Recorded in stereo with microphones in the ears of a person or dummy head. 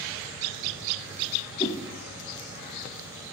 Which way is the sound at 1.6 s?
25° left (ahead or behind).